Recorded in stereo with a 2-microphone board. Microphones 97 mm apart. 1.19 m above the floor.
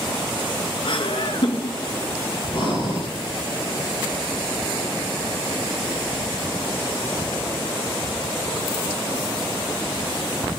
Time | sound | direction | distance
0.8 | laughter | 60° left (ahead or behind) | 1.8 m
2.5 | breathing | 55° left (ahead or behind) | 8.5 m